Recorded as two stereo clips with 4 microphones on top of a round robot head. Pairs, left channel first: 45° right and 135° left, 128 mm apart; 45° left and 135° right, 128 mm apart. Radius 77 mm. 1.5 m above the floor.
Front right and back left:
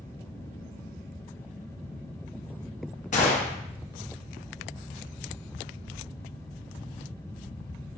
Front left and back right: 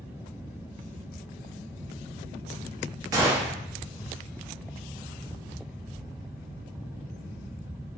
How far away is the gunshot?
About 0.8 m.